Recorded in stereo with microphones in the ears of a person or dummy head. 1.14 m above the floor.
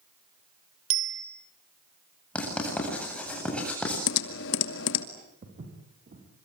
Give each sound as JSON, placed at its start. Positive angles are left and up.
{"t": 0.9, "sound": "a bicycle bell", "side_deg": -75, "distance_m": 3.0}
{"t": 2.4, "sound": "writing", "side_deg": 10, "distance_m": 8.0}
{"t": 4.1, "sound": "typing on a keyboard", "side_deg": 70, "distance_m": 2.0}
{"t": 5.4, "sound": "footsteps", "side_deg": -35, "distance_m": 6.0}